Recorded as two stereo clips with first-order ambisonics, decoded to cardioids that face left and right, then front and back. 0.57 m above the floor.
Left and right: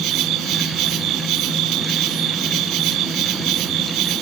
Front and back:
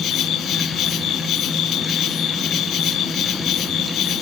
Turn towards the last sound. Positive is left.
turn(degrees=-50)